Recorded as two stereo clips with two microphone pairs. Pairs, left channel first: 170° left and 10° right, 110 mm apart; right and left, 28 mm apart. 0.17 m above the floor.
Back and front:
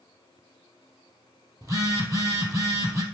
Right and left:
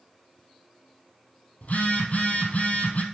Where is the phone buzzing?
70° right, 1.7 m.